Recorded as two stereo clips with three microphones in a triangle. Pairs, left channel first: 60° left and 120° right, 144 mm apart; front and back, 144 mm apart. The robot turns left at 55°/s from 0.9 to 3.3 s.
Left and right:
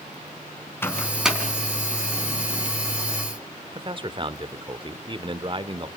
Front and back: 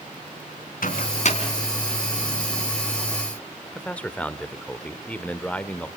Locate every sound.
0.8 s a microwave: 15° right, 3.5 m; by 1.4 s 40° right, 3.5 m
3.7 s a man speaking: 80° right, 1.0 m